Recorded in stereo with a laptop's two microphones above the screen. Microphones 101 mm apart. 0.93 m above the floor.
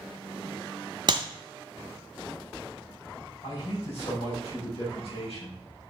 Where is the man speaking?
75° left (ahead or behind), 4.5 m.